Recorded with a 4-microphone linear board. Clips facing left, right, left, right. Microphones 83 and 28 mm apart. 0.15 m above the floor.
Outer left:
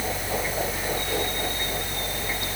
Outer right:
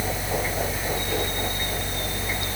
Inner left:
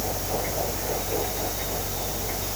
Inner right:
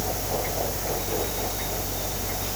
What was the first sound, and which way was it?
Only background noise.